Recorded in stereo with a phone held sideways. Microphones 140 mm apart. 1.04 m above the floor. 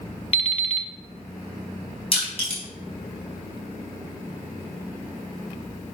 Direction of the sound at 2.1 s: 45° left (ahead or behind).